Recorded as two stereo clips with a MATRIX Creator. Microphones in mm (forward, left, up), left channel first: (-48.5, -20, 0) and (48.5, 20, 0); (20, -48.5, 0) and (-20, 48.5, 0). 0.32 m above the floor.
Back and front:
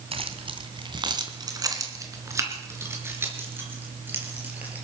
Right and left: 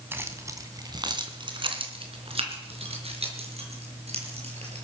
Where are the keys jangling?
45° left, 1.7 m; by 4.8 s 100° left, 5 m.